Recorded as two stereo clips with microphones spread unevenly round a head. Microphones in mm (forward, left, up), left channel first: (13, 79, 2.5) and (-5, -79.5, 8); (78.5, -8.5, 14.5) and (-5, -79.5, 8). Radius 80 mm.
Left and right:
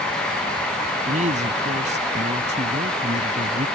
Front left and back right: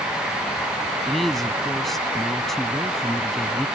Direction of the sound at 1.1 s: 45° right.